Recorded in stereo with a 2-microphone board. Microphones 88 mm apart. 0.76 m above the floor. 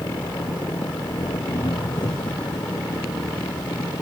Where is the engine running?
60° left (ahead or behind).